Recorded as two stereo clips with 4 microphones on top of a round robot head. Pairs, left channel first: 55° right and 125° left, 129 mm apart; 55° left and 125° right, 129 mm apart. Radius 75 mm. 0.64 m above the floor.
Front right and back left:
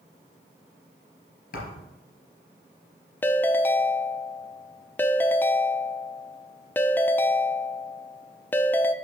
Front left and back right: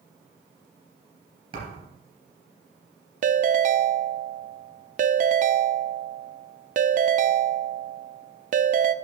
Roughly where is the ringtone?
Behind right.